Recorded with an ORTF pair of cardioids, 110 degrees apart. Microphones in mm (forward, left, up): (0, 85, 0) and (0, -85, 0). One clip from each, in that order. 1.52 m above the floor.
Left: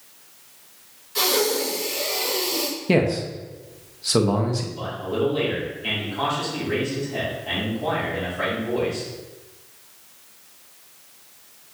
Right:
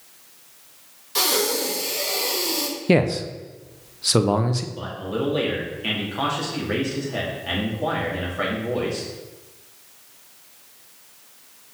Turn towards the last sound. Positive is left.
turn(degrees=-40)